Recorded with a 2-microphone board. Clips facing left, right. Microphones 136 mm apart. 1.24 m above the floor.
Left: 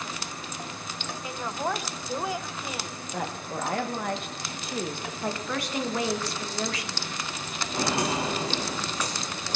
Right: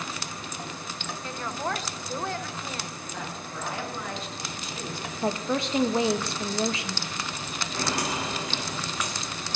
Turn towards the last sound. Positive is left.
turn(degrees=40)  # may be behind; listen again after turning